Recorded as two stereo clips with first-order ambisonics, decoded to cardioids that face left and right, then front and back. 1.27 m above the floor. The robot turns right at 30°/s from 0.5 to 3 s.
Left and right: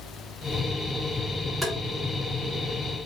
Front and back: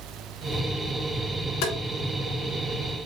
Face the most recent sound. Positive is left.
turn(degrees=35)